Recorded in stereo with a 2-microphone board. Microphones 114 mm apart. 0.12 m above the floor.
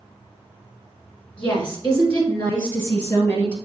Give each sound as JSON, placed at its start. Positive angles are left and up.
{"t": 1.4, "sound": "a woman speaking", "side_deg": 15, "distance_m": 1.5}